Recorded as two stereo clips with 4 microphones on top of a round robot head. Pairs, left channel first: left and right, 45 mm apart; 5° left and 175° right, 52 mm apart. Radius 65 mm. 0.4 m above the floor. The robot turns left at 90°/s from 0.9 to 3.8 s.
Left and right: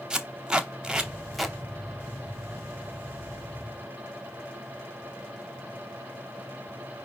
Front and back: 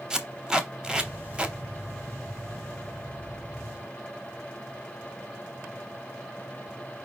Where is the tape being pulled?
130° right, 1.0 m; by 1.6 s 170° left, 1.0 m.